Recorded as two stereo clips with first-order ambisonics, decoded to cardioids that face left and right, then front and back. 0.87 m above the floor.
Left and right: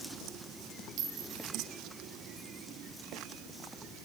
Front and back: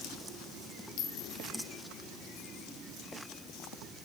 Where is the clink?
40° right, 1.9 m.